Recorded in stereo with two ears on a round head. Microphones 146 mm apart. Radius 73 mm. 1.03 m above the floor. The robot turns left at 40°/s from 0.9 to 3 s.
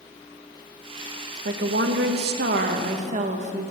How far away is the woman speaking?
About 1.0 m.